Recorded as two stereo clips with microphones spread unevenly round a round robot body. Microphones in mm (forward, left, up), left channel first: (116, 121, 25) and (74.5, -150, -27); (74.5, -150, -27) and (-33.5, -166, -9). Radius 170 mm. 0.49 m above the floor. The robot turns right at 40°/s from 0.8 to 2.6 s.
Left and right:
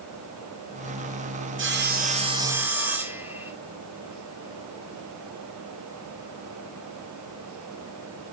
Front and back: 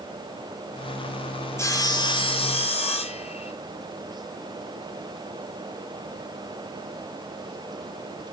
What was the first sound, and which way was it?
Sawing, 55° right.